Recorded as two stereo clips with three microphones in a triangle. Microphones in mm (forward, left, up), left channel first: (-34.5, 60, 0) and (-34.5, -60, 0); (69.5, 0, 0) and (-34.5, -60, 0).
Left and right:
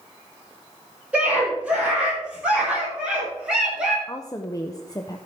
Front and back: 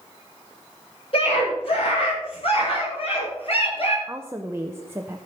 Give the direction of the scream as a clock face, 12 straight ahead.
12 o'clock.